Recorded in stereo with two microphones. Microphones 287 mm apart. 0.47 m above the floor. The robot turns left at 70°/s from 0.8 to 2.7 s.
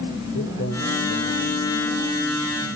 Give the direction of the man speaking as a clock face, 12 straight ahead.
8 o'clock.